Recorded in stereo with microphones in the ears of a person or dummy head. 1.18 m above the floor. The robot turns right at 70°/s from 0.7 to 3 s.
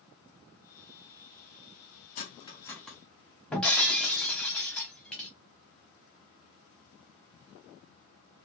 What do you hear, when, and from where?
2.1 s cutlery clinking: 40° left (ahead or behind), 0.5 m; by 3.0 s 5° right (ahead or behind), 0.5 m
3.5 s breaking glass: 5° left (ahead or behind), 0.9 m